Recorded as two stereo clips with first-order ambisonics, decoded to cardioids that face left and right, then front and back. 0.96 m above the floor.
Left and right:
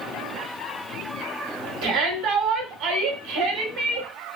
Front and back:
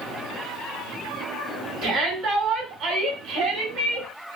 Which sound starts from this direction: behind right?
A shout, at 1.8 s.